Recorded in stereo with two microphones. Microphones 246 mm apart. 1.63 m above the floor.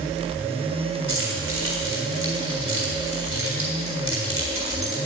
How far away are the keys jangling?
About 4 m.